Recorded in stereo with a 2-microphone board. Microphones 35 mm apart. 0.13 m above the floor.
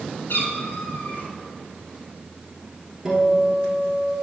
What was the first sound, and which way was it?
A cat meowing, 70° left (ahead or behind).